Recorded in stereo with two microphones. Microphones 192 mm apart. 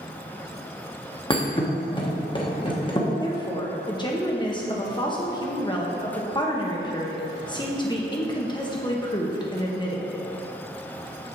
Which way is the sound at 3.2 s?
25° left (ahead or behind).